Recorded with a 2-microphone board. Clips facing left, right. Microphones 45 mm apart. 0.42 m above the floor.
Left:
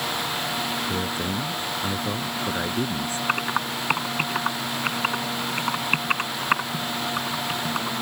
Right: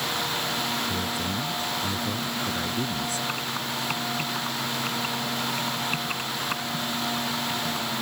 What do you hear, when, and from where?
0.9 s a man speaking: 30° left (ahead or behind)
3.3 s typing on a keyboard: 50° left (ahead or behind)